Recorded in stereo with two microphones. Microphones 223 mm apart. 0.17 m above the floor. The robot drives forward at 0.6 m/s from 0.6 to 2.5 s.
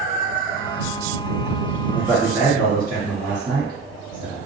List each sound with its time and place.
1.9 s a man speaking: 20° right (ahead or behind), 1.7 m